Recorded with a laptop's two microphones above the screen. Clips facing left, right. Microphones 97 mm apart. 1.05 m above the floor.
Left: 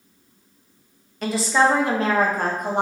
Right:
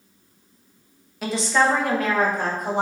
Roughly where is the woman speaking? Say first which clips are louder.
Left 1 dB; centre.